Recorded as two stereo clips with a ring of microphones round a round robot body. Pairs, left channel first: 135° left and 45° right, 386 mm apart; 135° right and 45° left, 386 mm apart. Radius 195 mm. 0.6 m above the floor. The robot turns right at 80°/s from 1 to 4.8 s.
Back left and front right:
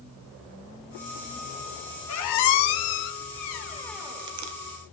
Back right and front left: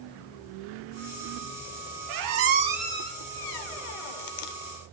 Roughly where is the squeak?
Left.